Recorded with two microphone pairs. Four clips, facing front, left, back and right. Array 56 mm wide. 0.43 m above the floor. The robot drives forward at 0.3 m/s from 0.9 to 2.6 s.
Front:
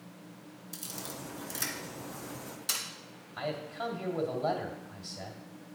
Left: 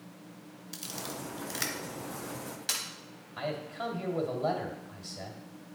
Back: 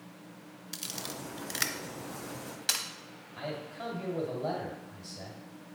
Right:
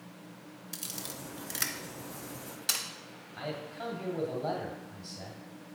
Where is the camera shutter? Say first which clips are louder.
Left 4 dB, back 2 dB; 165° right, 0.6 m; by 2.9 s 170° right, 1.1 m.